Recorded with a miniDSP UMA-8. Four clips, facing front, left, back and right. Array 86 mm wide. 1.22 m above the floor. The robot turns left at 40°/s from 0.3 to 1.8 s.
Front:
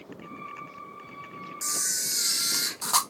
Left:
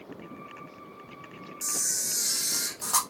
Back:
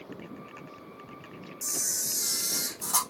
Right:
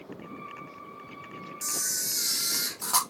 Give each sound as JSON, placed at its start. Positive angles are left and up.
{"t": 1.6, "sound": "a camera shutter", "azimuth_deg": 0, "distance_m": 0.6}